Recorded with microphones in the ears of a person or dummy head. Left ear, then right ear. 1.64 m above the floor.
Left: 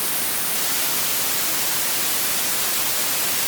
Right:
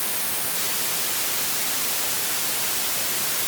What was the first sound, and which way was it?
Only background noise.